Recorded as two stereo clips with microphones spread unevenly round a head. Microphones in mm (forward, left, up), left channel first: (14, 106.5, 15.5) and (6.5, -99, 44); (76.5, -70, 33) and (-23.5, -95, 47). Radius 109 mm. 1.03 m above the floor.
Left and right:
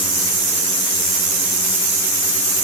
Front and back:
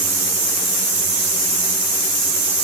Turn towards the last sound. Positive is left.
No sound to turn to.